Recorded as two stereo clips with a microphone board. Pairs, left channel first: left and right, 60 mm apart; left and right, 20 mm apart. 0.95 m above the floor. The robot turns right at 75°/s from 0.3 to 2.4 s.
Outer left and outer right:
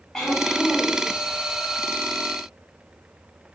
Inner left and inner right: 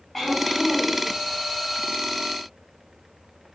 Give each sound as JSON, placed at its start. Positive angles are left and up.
{"t": 0.1, "sound": "throat clearing", "azimuth_deg": 180, "distance_m": 1.9}